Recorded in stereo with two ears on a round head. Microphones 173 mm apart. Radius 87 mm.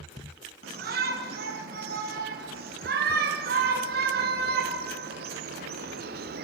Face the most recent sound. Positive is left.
turn(degrees=-55)  # may be behind; listen again after turning